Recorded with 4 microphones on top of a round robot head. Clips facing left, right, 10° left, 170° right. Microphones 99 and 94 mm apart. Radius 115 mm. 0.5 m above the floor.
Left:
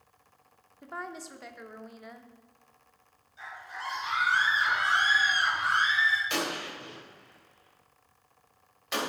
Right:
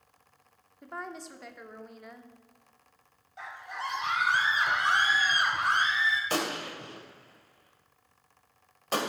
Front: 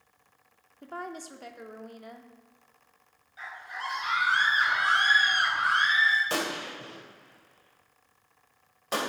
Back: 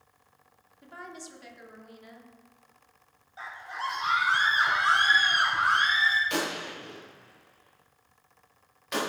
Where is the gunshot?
45° right, 2.5 m.